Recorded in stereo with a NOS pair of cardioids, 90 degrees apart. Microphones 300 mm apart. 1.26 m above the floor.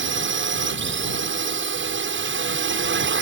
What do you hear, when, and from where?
0.0 s a drone: 40° right